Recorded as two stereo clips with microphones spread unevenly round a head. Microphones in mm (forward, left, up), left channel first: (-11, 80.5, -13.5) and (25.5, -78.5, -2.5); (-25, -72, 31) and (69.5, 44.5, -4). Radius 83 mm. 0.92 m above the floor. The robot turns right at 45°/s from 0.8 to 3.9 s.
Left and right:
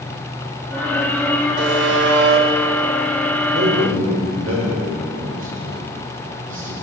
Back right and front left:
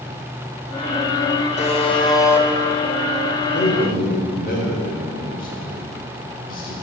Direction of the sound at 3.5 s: 110° right.